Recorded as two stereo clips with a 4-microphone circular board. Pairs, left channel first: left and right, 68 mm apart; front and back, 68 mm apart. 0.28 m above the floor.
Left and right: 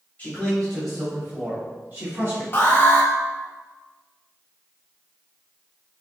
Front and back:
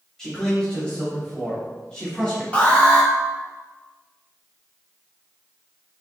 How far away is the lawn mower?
No lawn mower in this recording.